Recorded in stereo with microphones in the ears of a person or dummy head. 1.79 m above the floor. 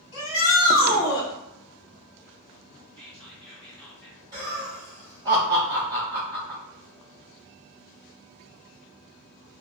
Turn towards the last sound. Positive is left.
turn(degrees=-20)  # may be behind; listen again after turning